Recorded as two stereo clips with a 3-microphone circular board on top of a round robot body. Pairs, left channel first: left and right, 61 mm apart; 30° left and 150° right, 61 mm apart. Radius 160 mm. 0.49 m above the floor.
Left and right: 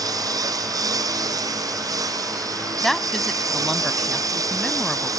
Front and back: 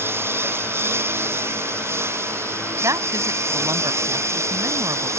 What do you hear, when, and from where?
0.0 s a lawn mower: 100° right; by 5.2 s 110° right
2.8 s a woman speaking: straight behind